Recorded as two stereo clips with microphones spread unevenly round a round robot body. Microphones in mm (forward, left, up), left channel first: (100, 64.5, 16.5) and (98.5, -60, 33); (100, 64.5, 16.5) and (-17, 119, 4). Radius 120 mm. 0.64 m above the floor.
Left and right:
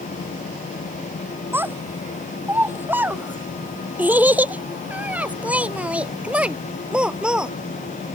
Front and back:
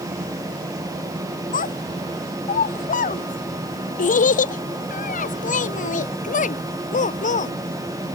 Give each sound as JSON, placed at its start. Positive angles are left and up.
{"t": 1.5, "sound": "a child speaking", "azimuth_deg": -20}